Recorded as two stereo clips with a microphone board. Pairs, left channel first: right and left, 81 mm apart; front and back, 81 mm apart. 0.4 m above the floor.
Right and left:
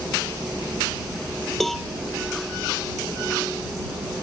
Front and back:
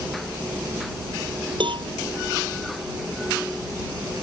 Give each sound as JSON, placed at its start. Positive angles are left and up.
{"t": 1.6, "sound": "a cowbell", "azimuth_deg": -175}